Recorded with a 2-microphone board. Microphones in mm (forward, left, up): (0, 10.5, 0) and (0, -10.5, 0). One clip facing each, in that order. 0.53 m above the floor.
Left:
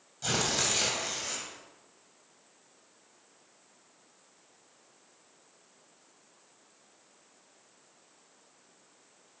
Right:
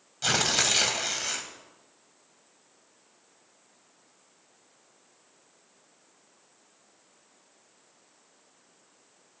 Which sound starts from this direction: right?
Tearing paper, at 0.2 s.